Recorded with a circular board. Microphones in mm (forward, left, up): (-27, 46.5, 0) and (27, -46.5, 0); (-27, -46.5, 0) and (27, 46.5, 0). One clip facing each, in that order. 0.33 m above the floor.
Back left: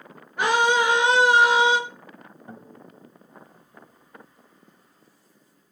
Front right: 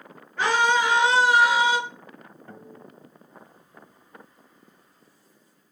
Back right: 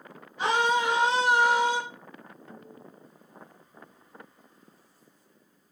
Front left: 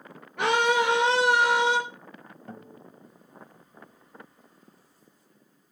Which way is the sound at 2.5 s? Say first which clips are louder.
Back left 1 dB, front left 5 dB; 55° left.